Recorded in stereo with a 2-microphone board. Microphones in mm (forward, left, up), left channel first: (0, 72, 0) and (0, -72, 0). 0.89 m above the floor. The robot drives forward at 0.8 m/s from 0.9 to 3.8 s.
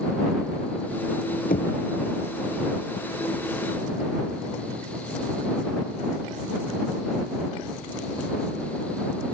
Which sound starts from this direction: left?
Knocking, at 1.5 s.